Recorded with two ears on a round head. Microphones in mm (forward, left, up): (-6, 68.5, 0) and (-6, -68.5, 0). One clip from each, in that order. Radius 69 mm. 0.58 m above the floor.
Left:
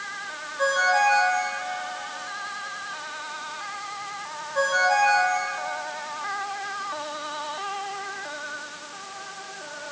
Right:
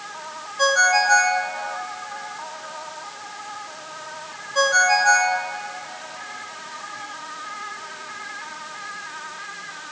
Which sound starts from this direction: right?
A ringtone, at 0.6 s.